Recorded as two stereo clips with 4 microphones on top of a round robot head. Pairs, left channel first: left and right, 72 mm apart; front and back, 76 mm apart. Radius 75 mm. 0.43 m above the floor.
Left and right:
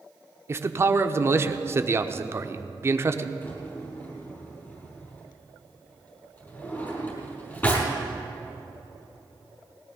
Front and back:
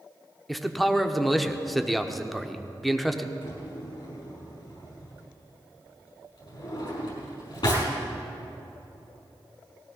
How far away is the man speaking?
About 0.9 m.